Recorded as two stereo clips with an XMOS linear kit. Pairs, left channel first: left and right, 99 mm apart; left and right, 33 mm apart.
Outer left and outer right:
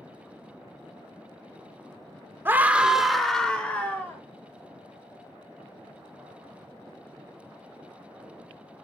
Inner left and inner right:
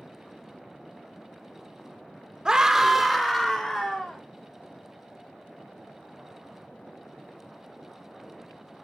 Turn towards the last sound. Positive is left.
turn(degrees=20)  # may be behind; listen again after turning